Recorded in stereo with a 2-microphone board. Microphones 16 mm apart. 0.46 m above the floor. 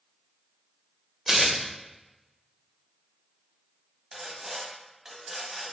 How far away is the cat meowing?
I don't hear a cat meowing.